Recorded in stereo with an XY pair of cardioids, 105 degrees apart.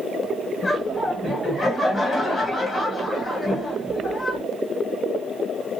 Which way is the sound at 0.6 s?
30° left.